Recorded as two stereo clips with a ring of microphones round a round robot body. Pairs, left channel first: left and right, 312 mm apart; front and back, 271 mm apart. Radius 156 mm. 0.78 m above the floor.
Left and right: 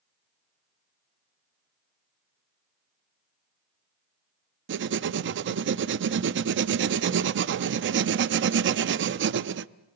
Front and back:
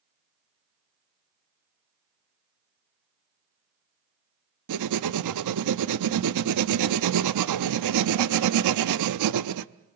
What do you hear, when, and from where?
4.7 s writing: 145° right, 0.5 m